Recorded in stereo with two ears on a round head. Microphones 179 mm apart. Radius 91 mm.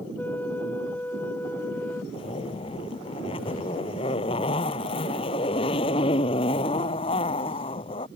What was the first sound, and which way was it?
A flute, 10° left (ahead or behind).